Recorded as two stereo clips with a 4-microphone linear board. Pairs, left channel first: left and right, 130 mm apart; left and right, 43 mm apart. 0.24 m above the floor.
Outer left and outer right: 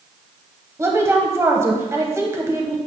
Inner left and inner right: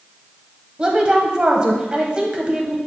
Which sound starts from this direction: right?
A woman speaking, at 0.8 s.